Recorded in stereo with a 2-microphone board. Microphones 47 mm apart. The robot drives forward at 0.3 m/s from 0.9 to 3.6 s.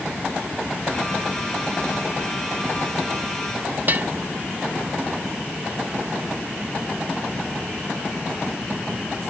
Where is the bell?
40° right (ahead or behind).